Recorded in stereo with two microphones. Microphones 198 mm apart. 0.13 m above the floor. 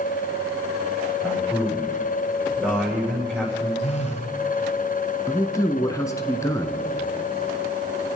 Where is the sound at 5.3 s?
15° left (ahead or behind), 1.2 m.